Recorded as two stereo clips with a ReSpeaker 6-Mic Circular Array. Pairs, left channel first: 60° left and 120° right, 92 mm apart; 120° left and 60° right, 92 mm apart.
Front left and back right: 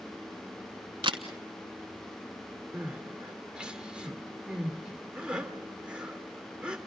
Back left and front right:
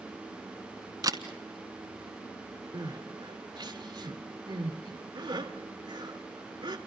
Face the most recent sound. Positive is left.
turn(degrees=-40)